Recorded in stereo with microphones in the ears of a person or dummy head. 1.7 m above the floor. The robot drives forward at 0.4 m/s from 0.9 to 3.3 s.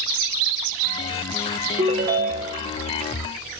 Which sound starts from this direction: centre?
A ringtone, at 1.8 s.